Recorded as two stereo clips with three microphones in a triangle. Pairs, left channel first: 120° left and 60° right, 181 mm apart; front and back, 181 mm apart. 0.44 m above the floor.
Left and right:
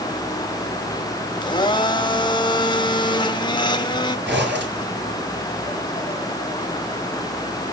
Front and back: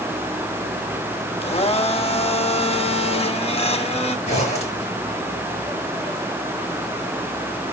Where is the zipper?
55° right, 4.5 m.